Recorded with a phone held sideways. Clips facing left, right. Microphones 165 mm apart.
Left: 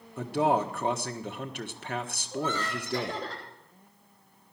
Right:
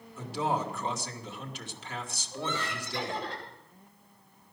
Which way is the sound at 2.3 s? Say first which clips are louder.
Left 4 dB; 40° left (ahead or behind).